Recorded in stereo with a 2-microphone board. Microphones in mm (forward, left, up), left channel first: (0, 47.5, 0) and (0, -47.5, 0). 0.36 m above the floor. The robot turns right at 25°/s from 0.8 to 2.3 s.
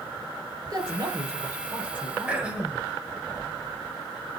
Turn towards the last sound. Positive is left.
turn(degrees=-10)  # may be behind; listen again after turning